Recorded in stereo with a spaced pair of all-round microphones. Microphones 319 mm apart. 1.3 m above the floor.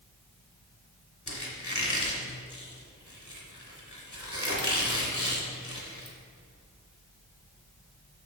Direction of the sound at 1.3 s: 65° left (ahead or behind).